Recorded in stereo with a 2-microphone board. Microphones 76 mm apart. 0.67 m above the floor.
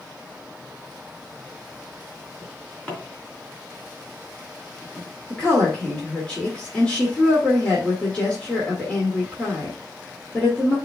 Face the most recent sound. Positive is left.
turn(degrees=15)  # may be behind; listen again after turning